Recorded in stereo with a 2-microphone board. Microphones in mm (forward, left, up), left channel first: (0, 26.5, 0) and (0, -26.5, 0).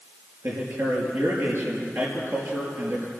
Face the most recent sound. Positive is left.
turn(degrees=-55)  # may be behind; listen again after turning